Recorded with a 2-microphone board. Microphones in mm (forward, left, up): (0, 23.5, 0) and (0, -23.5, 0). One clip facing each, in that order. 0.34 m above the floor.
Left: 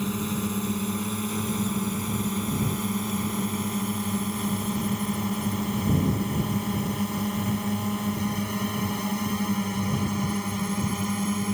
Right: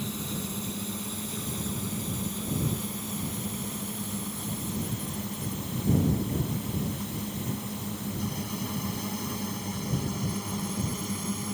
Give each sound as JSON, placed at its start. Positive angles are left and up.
{"t": 0.0, "sound": "a drone", "side_deg": 45}